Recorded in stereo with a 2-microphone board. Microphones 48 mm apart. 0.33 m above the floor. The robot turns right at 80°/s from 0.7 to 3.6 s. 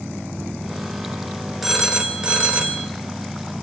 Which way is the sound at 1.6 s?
5° right (ahead or behind).